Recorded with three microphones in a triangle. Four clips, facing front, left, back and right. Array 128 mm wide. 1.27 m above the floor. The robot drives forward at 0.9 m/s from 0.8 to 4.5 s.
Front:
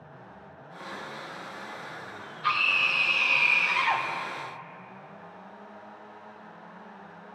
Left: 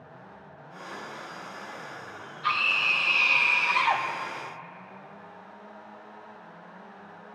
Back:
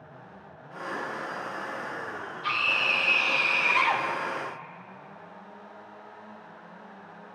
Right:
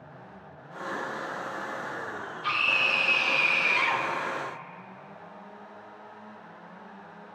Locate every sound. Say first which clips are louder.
2.4 s a scream: left 2 dB, front 2 dB; 35° left, 0.9 m; by 4.0 s 145° left, 0.9 m